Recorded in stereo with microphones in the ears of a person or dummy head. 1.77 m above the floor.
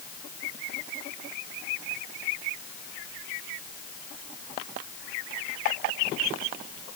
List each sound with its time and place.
Only background noise.